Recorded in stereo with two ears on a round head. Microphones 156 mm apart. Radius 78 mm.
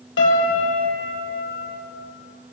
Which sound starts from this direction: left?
A piano, at 0.2 s.